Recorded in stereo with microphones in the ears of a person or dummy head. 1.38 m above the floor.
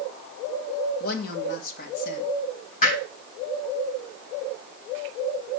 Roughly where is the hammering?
Left.